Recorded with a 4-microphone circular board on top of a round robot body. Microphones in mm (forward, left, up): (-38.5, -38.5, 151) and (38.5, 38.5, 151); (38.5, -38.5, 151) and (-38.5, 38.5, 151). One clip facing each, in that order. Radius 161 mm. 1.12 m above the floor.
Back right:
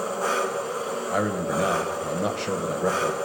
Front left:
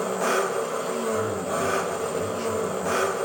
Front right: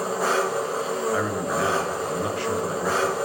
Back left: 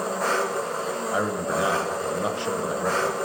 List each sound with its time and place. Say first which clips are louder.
0.0 s an engine running: front left 2 dB, front right 2 dB; 40° left, 1.6 m
1.1 s a man speaking: back right 1 dB, front right 1 dB; 155° right, 0.9 m